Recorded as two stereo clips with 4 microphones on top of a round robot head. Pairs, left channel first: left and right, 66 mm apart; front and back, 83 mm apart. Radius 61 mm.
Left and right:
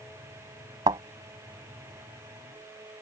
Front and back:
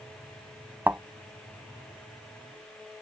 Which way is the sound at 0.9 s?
110° right.